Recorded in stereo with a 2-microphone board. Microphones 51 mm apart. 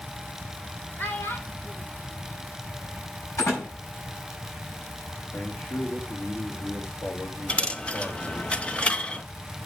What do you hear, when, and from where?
1.0 s a child speaking: 40° left (ahead or behind), 1.5 m; by 3.0 s 65° left (ahead or behind), 3 m
3.4 s a door slam: 75° left (ahead or behind), 6.5 m
5.3 s a man speaking: 70° left (ahead or behind), 2.5 m
7.5 s a dropped coin: 20° left (ahead or behind), 0.7 m